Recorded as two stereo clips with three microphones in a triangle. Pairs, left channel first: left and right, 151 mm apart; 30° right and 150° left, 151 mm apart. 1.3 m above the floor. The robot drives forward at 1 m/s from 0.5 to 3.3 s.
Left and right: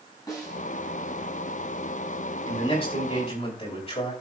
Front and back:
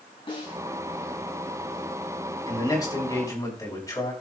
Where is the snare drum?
25° left, 6 m.